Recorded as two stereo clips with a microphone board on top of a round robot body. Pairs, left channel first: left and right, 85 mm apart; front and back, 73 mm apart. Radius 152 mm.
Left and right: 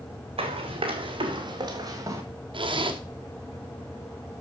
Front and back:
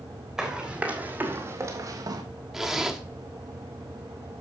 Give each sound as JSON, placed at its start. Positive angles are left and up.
{"t": 0.4, "sound": "running footsteps", "azimuth_deg": -95, "distance_m": 2.0}
{"t": 2.5, "sound": "a zipper", "azimuth_deg": -90, "distance_m": 2.0}